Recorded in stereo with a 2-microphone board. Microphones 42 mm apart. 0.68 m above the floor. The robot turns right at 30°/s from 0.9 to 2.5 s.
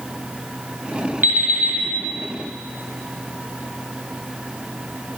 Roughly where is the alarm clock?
Right.